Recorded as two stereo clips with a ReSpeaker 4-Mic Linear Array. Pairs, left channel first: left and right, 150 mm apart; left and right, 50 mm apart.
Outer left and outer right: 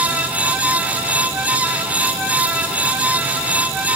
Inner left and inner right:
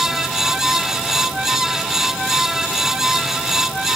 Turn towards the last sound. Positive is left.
No sound to turn to.